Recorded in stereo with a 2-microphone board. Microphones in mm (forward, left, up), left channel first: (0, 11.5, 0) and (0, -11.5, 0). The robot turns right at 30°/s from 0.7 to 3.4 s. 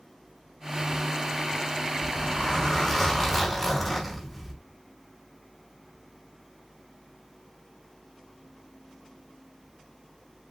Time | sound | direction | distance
2.0 | a zipper | 130° left | 5 m